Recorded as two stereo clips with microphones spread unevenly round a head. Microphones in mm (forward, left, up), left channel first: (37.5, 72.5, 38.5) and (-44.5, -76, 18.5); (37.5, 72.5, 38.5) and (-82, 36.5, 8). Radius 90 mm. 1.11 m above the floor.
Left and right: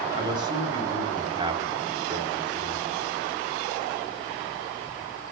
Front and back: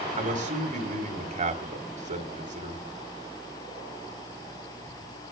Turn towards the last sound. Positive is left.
turn(degrees=175)